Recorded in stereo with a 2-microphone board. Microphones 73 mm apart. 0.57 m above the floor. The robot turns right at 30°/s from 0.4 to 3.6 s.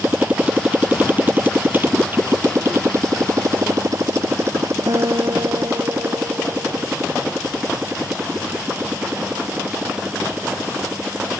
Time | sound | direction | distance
0.0 | a motorcycle | 25° right (ahead or behind) | ?
4.9 | a guitar | 65° right (ahead or behind) | ?